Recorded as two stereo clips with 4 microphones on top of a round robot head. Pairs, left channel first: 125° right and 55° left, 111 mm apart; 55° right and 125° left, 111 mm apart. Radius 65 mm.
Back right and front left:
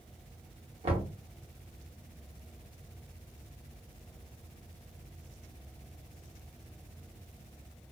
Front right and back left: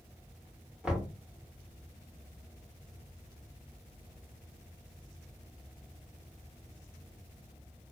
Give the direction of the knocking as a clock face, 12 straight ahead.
10 o'clock.